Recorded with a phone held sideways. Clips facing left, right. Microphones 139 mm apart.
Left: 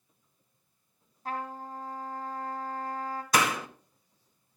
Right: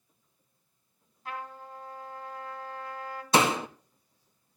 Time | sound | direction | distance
1.2 | a trumpet | 40° left (ahead or behind) | 3 m
3.3 | a door slam | 25° right (ahead or behind) | 0.9 m